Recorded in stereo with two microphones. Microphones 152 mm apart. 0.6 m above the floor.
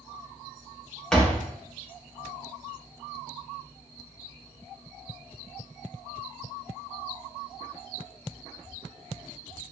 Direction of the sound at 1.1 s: 5° left (ahead or behind).